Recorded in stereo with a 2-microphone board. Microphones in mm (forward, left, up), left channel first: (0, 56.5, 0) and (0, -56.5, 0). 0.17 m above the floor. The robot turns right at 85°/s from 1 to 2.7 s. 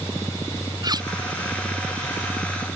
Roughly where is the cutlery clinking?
Right.